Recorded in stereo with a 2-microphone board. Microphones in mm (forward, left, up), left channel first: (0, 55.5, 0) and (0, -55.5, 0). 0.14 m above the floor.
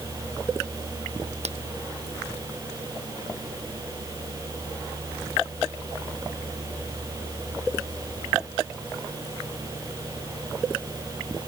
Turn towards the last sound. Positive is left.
turn(degrees=-75)  # may be behind; listen again after turning